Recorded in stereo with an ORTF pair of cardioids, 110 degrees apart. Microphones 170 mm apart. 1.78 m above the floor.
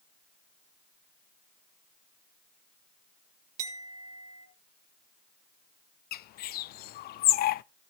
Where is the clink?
45° right, 3 m.